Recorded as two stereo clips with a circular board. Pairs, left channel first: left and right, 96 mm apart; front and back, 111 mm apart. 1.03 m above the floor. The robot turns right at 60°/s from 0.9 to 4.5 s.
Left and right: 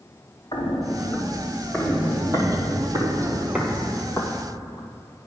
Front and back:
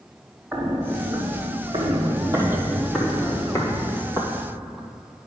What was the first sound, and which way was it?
Footsteps, 120° left.